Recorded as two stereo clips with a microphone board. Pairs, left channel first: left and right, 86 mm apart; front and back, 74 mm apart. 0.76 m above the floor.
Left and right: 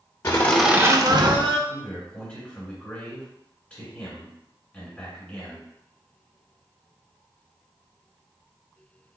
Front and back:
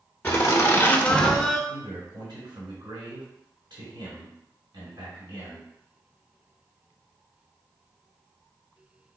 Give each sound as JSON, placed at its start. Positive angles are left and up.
{"t": 0.2, "sound": "laughter", "azimuth_deg": 45, "distance_m": 0.6}
{"t": 1.7, "sound": "a man speaking", "azimuth_deg": 165, "distance_m": 1.7}